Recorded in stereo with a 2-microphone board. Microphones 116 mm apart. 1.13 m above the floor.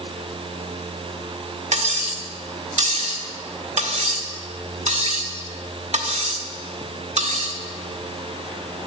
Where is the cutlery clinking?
75° right (ahead or behind), 1.7 m.